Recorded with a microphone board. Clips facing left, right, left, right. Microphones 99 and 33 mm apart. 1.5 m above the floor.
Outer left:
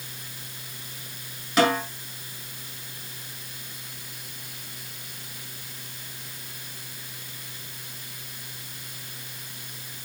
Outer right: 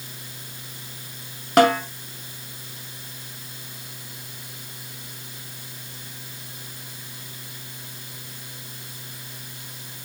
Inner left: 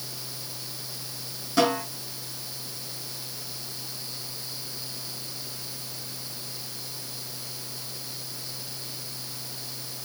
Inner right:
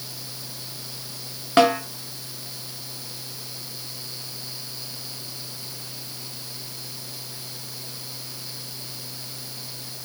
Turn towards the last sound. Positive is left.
turn(degrees=-55)  # may be behind; listen again after turning